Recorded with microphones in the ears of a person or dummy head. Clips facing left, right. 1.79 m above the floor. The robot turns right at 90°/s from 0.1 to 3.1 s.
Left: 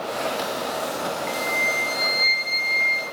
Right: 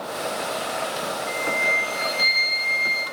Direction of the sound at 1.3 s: 85° left.